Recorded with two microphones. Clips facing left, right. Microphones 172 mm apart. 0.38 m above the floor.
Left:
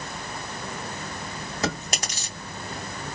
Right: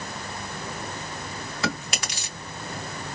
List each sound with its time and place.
1.6 s chewing: 40° left (ahead or behind), 2.5 m